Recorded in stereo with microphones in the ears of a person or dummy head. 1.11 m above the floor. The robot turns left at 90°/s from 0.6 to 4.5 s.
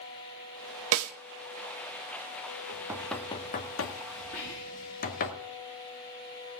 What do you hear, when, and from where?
0.9 s a snare drum: 70° right (ahead or behind), 1.0 m; by 1.1 s 85° right, 1.0 m
2.7 s knocking: 30° right (ahead or behind), 1.6 m; by 5.3 s 50° left (ahead or behind), 1.6 m
4.3 s whispering: 45° left (ahead or behind), 2.5 m; by 5.0 s 60° left (ahead or behind), 2.5 m